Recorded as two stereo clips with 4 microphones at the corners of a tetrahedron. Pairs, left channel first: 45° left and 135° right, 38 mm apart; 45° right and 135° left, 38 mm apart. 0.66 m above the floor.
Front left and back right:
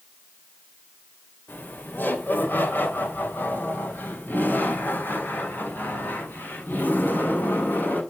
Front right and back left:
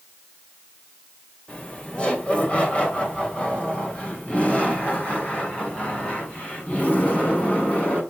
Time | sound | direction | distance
1.5 | laughter | 15° left | 3 m